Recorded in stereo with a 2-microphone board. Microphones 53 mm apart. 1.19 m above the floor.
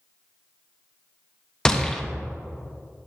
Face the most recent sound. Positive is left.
turn(degrees=15)  # may be behind; listen again after turning